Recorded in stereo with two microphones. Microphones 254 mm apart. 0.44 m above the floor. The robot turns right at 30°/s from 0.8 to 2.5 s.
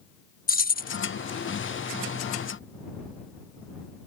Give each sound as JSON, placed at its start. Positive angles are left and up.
{"t": 0.5, "sound": "keys jangling", "side_deg": 35}